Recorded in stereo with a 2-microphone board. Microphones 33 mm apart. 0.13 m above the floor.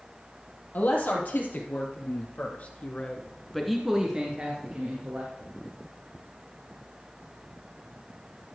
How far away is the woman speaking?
About 4.5 m.